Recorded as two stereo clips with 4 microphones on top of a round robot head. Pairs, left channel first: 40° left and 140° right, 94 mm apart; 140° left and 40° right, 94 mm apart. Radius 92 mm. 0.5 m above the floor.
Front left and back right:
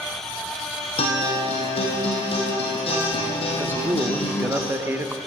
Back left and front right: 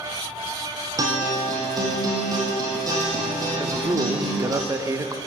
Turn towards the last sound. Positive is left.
turn(degrees=-85)